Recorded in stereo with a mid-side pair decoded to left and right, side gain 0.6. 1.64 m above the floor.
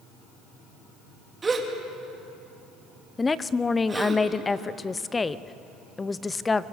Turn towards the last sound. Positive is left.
turn(degrees=20)